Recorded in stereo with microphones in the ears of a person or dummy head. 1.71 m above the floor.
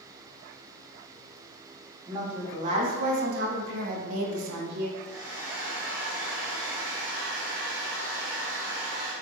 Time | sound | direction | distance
2.1 | a woman speaking | 30° right (ahead or behind) | 1.6 m
5.0 | a hair dryer | 20° right (ahead or behind) | 1.4 m